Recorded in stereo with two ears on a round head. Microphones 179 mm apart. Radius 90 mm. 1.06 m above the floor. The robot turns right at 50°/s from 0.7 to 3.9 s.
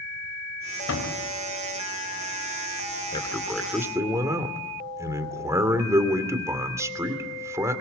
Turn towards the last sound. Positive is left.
turn(degrees=-165)